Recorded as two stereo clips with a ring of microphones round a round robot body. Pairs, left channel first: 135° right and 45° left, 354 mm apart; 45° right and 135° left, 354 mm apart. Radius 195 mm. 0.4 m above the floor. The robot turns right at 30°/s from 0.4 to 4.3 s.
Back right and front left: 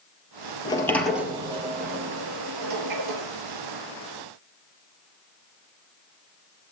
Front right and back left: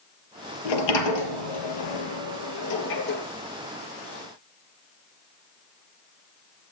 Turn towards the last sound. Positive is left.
turn(degrees=50)